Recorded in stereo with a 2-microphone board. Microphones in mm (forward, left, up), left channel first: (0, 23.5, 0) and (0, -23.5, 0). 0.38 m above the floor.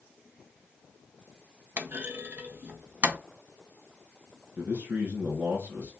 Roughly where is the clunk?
Right.